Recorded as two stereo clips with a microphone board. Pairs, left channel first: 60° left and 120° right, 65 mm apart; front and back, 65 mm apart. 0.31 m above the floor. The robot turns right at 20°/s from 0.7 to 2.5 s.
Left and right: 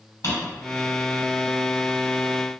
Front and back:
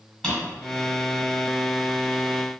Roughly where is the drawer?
Left.